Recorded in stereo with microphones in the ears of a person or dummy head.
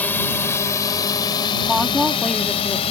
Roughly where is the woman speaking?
Centre.